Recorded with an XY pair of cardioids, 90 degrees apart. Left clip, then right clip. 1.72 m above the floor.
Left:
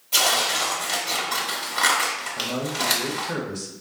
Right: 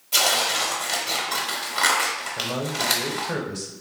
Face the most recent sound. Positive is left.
turn(degrees=-25)